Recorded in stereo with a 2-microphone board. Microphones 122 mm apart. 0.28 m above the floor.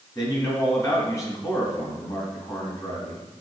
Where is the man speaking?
30° left (ahead or behind), 3 m.